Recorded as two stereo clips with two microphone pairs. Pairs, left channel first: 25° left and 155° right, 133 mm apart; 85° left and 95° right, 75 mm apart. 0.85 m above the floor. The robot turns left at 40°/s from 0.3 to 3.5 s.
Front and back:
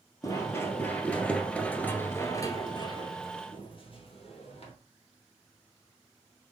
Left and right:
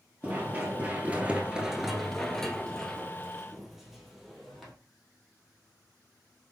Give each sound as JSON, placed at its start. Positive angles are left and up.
{"t": 0.2, "sound": "running footsteps", "azimuth_deg": -30, "distance_m": 1.1}